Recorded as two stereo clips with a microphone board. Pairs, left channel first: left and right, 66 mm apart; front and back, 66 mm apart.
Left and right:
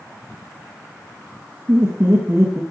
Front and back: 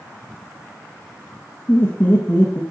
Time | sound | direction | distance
1.7 | laughter | 65° right | 1.6 m